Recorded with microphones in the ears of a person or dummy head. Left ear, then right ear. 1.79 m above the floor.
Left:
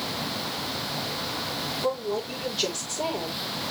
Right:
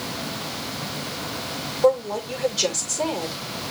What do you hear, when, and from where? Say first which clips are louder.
1.8 s a woman speaking: right 11 dB; 45° right (ahead or behind), 6.5 m